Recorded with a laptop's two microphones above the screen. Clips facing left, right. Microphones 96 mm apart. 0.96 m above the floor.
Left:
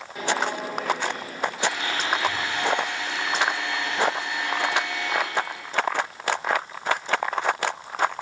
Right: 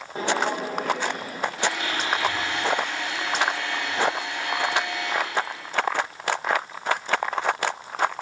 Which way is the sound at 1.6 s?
80° right.